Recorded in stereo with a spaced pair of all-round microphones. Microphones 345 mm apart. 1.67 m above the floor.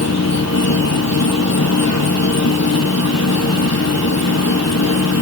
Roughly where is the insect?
Left.